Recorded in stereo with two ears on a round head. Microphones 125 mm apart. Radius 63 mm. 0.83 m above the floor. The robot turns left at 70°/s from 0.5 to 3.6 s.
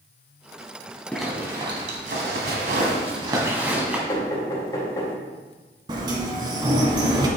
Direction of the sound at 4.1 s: 30° left (ahead or behind).